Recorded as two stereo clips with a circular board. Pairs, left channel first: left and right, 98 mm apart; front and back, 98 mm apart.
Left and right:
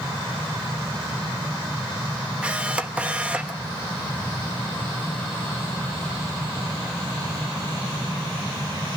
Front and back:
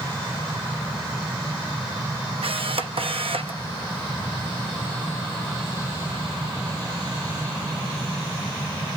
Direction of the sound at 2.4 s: 170° right.